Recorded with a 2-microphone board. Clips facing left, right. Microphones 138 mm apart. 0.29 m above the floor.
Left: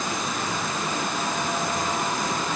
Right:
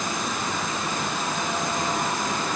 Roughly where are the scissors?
I don't hear scissors.